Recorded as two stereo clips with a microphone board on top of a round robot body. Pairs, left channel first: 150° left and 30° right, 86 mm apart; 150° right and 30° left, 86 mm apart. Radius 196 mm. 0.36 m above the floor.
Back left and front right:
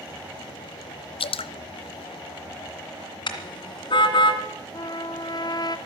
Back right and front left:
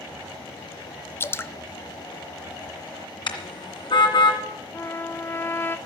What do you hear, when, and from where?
1.2 s dripping: 145° left, 0.5 m
3.3 s a car horn: straight behind, 2 m
4.7 s a trumpet: 155° left, 1.0 m